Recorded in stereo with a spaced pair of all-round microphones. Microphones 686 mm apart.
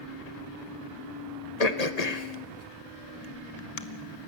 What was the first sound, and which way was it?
Throat clearing, 65° left (ahead or behind).